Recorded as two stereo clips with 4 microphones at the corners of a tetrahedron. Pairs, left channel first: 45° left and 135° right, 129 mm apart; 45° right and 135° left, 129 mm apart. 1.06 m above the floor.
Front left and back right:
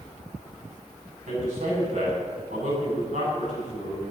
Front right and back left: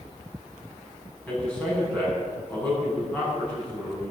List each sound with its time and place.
1.3 s a man speaking: 120° right, 7 m